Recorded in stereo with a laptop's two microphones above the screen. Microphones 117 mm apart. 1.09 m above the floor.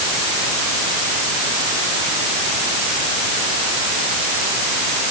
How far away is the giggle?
I don't hear a giggle.